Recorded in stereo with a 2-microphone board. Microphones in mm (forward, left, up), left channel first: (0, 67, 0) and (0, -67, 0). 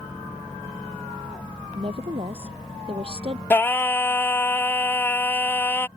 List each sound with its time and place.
1.7 s a woman speaking: 45° right (ahead or behind)
3.5 s singing: 15° left (ahead or behind)